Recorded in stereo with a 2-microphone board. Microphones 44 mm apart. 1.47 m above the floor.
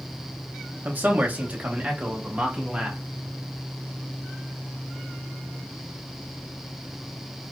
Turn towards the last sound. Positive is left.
turn(degrees=-20)  # may be behind; listen again after turning